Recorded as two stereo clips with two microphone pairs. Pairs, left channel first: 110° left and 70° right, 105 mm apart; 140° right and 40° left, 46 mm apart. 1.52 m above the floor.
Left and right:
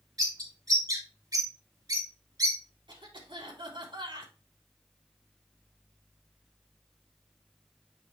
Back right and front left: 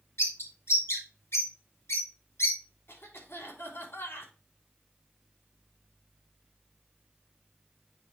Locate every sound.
0.2 s a bird: 120° right, 2.5 m
2.9 s a cough: 105° right, 3 m